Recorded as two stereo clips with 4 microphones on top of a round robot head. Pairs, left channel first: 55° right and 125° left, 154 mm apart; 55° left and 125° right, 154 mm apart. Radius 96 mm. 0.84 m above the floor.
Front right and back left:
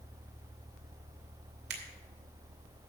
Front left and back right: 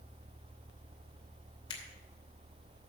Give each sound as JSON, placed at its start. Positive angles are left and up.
{"t": 1.7, "sound": "a finger snap", "azimuth_deg": 115, "distance_m": 2.5}